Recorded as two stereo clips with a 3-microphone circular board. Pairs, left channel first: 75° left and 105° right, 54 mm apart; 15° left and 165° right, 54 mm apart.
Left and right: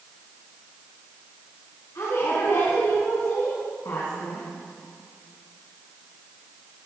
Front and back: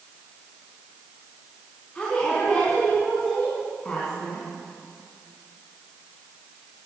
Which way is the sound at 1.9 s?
85° left.